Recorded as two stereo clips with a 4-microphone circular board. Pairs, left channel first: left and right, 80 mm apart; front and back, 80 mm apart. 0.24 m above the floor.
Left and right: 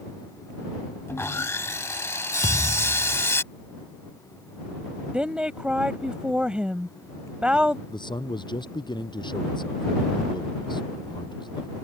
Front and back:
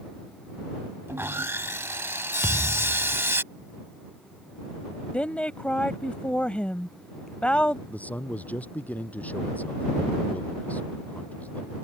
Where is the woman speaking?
40° right.